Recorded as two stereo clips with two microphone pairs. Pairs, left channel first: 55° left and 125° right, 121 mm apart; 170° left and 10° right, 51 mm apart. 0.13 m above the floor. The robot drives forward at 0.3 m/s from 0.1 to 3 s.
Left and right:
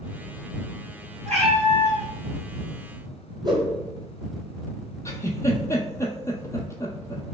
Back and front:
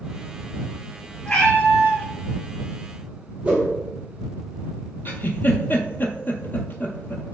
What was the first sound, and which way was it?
A cat meowing, 130° right.